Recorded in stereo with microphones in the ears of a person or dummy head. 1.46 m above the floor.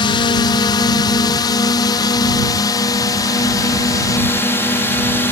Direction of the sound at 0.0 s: 25° left (ahead or behind).